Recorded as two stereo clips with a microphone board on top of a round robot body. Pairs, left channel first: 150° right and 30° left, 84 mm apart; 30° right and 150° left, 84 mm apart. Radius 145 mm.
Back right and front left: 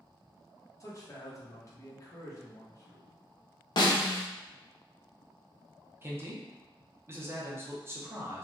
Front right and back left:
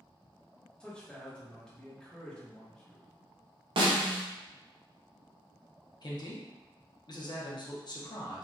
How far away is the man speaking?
About 1.1 m.